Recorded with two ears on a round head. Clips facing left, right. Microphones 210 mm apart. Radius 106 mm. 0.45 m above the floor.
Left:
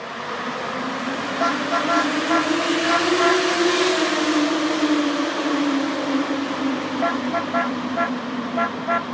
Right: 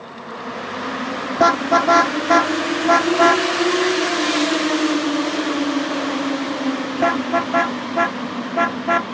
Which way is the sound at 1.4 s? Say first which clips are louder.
Right 7 dB; 65° right (ahead or behind).